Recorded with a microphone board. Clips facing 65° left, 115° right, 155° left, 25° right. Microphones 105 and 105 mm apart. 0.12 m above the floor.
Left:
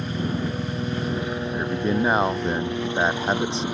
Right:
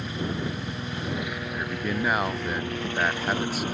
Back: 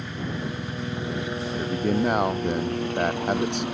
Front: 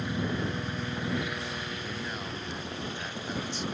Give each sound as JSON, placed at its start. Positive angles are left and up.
{"t": 0.0, "sound": "a helicopter", "azimuth_deg": 50}
{"t": 1.5, "sound": "a man speaking", "azimuth_deg": 130}